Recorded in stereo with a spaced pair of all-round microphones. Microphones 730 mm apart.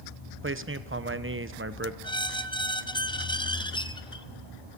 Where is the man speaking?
20° right (ahead or behind), 0.9 m.